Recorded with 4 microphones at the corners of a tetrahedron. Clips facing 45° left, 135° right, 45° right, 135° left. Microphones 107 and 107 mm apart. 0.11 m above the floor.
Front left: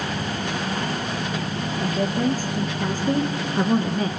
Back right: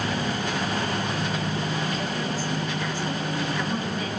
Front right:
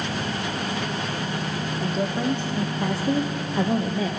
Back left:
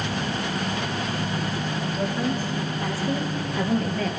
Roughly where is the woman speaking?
Ahead.